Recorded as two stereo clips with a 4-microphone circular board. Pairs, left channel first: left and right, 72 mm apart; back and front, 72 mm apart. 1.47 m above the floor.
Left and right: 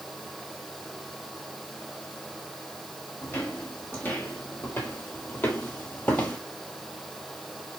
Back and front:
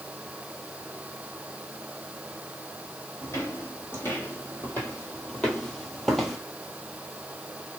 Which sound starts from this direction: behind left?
Footsteps, at 3.2 s.